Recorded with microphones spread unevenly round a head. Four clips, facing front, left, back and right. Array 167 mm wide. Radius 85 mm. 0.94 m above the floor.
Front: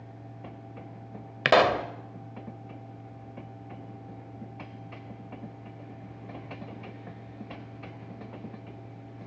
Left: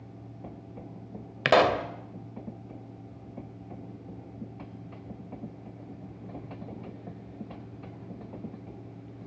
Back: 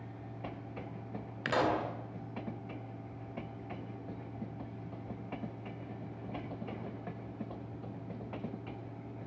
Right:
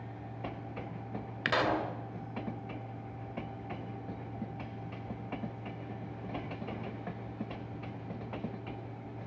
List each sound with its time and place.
0.0 s a fan: 75° right, 9.5 m
1.4 s a pop: 40° left, 2.5 m